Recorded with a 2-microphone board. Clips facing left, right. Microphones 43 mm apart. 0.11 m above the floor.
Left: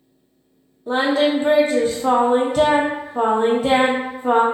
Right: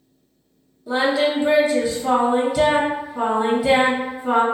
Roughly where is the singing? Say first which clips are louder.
Left 1 dB; left.